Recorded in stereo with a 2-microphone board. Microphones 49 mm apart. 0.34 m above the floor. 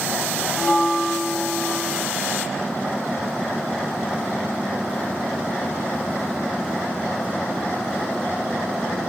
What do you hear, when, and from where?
0.6 s a bell: 10° left (ahead or behind), 0.8 m